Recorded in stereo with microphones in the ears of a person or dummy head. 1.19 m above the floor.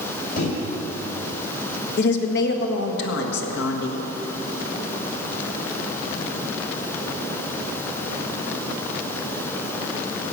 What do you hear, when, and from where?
0.4 s a microwave: 55° left (ahead or behind), 3.5 m
2.0 s a woman speaking: 65° left (ahead or behind), 1.5 m